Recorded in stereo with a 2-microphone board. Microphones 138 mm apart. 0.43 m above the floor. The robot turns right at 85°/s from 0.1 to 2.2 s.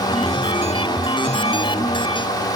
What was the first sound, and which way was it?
Only background noise.